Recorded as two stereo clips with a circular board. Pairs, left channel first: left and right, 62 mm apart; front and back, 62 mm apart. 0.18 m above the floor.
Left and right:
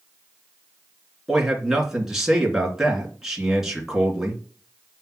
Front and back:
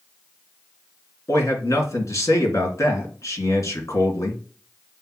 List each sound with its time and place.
1.3 s a man speaking: 5° right, 3 m